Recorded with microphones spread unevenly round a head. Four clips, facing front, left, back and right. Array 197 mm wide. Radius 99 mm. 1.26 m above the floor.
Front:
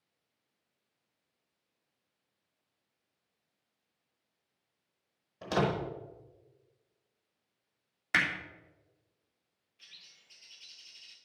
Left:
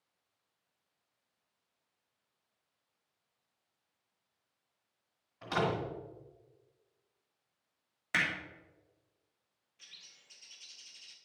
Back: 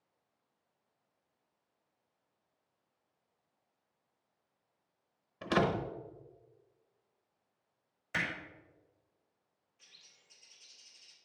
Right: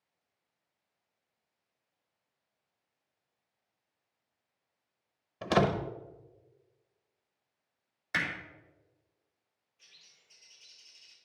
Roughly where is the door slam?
Right.